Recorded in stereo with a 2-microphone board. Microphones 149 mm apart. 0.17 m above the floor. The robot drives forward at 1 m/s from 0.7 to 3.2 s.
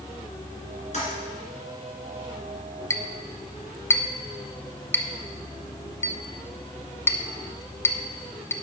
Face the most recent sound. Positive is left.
turn(degrees=15)  # may be behind; listen again after turning